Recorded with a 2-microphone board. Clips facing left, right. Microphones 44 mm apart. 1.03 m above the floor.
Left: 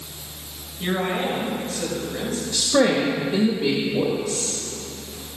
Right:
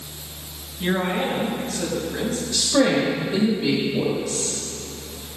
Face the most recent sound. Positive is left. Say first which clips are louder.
# even
turn(degrees=25)  # may be behind; listen again after turning